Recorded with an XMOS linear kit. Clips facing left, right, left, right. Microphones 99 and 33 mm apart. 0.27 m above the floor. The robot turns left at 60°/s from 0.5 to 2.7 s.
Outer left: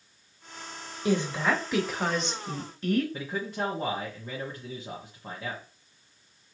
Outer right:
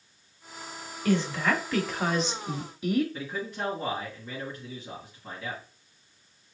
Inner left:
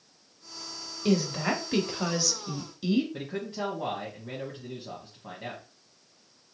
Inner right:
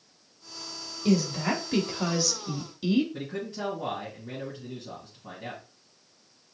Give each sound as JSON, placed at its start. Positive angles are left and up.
{"t": 1.1, "sound": "a woman speaking", "side_deg": 15, "distance_m": 0.9}
{"t": 3.1, "sound": "a man speaking", "side_deg": 35, "distance_m": 1.5}